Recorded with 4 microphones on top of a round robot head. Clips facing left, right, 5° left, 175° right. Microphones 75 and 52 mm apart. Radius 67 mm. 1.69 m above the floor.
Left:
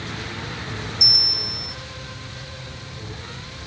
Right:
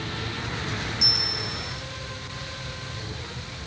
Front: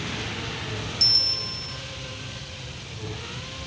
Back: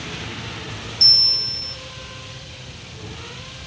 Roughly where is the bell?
Left.